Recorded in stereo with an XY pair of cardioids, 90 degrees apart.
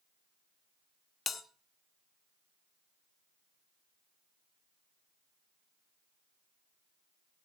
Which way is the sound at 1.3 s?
55° left.